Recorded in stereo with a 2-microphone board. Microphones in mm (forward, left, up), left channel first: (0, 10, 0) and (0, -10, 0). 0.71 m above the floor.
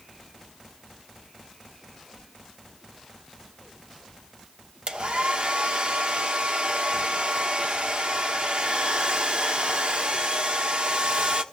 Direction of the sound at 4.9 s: 60° right (ahead or behind).